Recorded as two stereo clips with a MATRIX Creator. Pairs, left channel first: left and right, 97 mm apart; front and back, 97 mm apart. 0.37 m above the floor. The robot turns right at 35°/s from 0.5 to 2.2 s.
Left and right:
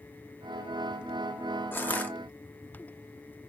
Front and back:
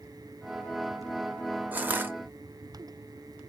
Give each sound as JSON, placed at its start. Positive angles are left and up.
{"t": 1.7, "sound": "crushing", "azimuth_deg": 125, "distance_m": 0.5}